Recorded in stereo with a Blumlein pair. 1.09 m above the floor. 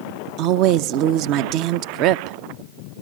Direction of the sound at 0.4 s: 40° right.